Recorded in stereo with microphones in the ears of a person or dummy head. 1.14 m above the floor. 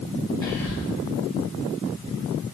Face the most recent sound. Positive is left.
turn(degrees=5)  # may be behind; listen again after turning